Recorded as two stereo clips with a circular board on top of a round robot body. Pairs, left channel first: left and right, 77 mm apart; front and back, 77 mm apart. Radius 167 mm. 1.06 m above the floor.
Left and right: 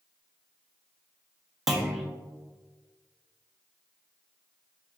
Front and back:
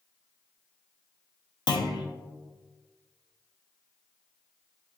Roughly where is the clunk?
Ahead.